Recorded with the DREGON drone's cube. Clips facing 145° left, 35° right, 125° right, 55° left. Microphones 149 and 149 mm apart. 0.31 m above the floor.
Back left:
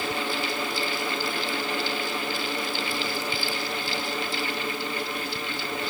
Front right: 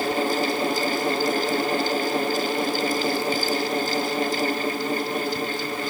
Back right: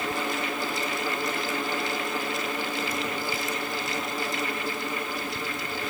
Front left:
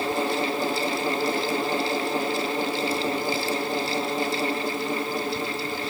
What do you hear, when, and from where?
Only background noise.